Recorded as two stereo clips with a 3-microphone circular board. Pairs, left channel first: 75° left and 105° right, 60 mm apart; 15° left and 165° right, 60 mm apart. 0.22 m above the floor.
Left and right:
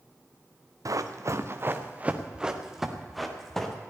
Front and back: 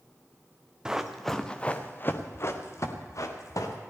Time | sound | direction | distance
0.8 | running footsteps | 85° right | 1.4 m